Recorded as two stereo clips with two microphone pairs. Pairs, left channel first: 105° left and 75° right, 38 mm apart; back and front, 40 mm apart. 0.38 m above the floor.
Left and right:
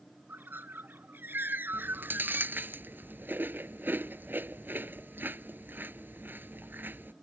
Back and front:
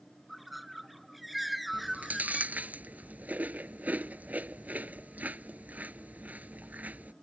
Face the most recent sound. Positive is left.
turn(degrees=-50)